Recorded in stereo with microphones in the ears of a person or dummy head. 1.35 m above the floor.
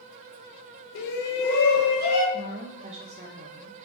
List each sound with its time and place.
0.9 s a shout: 65° left (ahead or behind), 0.7 m; by 2.2 s 50° left (ahead or behind), 1.7 m
2.3 s a woman speaking: 30° right (ahead or behind), 0.5 m